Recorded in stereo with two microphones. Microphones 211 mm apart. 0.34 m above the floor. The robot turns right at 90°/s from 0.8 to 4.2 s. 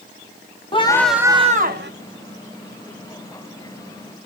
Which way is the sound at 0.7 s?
155° left.